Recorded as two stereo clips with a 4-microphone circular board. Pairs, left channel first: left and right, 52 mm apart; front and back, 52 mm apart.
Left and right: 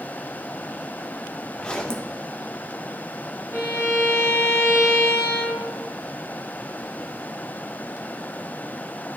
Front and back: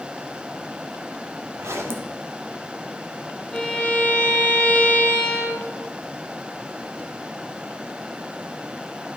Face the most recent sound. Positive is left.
turn(degrees=80)